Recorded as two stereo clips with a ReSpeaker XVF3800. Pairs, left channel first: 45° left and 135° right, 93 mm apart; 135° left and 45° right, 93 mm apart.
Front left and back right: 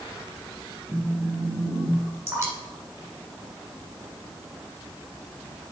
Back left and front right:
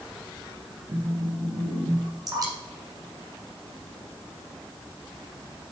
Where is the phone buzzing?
15° right, 3.5 m.